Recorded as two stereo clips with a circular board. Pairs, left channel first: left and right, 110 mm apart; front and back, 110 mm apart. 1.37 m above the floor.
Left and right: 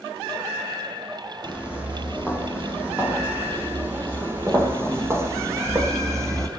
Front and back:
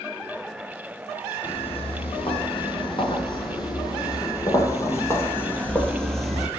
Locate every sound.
1.4 s footsteps: 15° right, 3 m; by 6.5 s 95° right, 1.5 m